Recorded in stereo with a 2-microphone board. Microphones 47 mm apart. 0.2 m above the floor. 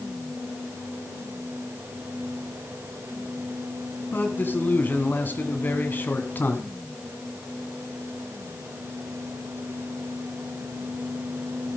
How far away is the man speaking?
About 1.6 m.